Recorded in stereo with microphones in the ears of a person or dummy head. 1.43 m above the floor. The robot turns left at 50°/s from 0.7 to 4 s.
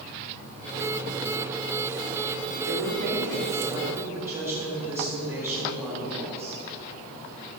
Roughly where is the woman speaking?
Right.